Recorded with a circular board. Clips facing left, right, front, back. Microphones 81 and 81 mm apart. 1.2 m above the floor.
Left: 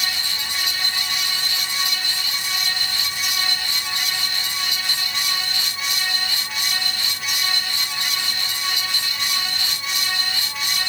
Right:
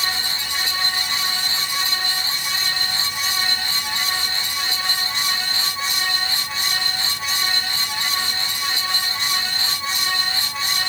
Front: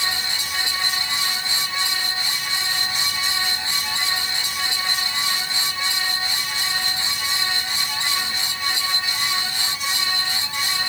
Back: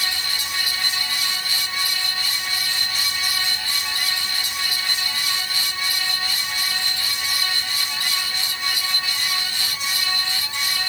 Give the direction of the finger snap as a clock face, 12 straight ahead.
No finger snap in this recording.